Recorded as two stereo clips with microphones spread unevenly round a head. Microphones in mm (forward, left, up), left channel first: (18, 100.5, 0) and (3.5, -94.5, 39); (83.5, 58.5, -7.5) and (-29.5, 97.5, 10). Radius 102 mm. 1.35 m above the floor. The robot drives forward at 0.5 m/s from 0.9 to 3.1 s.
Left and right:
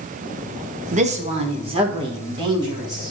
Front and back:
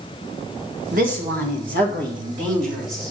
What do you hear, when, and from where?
0.9 s a woman speaking: 150° right, 1.1 m; by 3.1 s 165° right, 2 m